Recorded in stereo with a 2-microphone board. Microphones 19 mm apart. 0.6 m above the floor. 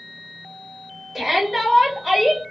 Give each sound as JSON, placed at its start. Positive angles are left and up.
{"t": 1.1, "sound": "a shout", "side_deg": -15, "distance_m": 2.0}